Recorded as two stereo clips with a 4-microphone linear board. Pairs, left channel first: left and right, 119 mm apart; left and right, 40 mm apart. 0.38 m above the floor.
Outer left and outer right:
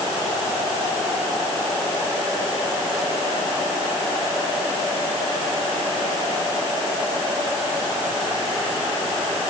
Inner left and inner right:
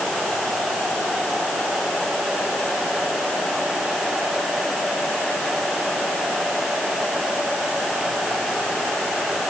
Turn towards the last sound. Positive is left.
No sound to turn to.